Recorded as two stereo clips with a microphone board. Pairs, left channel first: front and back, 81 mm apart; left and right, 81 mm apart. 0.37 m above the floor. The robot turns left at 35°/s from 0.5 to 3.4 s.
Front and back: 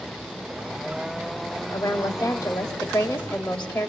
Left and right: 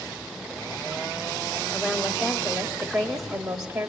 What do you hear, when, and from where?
1.7 s a woman speaking: 5° right, 1.9 m; by 3.9 s 60° right, 1.9 m